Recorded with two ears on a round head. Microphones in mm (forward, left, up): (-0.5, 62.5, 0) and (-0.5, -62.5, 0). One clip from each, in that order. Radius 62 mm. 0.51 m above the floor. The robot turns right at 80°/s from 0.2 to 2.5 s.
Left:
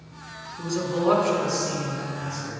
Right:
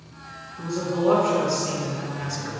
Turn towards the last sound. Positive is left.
turn(degrees=-105)